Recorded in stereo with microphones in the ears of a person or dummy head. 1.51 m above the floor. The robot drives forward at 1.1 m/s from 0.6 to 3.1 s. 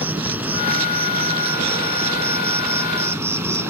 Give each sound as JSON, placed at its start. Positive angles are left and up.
{"t": 0.0, "sound": "an insect", "side_deg": -10}